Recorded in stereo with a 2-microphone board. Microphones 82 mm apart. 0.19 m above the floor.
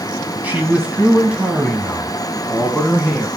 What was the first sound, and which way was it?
A man speaking, 20° right (ahead or behind).